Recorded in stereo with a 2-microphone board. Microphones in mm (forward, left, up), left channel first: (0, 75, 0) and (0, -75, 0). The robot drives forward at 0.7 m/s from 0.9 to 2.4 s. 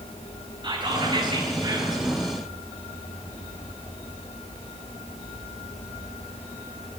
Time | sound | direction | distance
0.6 | whispering | 35° right (ahead or behind) | 3.5 m